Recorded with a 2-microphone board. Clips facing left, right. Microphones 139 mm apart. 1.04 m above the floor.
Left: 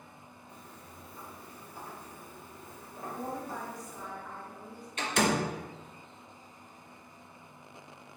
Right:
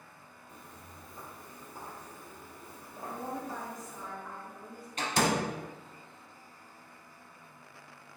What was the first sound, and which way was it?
Footsteps, 50° right (ahead or behind).